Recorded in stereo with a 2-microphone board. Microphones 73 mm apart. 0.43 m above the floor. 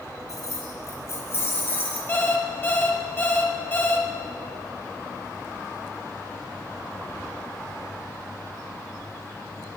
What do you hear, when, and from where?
0.3 s keys jangling: 50° left (ahead or behind), 3 m; by 2.0 s 30° left (ahead or behind), 3.5 m
2.1 s an alarm clock: 30° left (ahead or behind), 1.7 m